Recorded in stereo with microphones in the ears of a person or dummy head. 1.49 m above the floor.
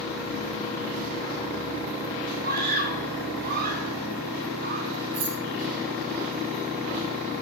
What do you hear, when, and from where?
2.4 s a scream: 55° right (ahead or behind), 4.5 m
5.1 s keys jangling: 30° right (ahead or behind), 8.5 m